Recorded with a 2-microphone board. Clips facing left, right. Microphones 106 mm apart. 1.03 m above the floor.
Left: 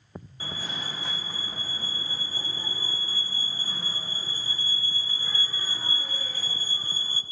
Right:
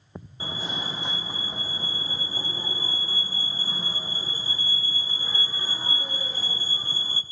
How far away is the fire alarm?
About 1.1 m.